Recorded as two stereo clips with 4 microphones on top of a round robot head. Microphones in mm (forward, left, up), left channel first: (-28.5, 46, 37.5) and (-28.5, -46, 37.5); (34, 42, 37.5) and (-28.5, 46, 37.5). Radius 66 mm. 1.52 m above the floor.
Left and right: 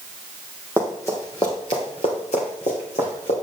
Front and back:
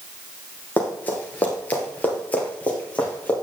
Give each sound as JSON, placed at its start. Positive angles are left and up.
{"t": 0.8, "sound": "running footsteps", "azimuth_deg": 30, "distance_m": 1.6}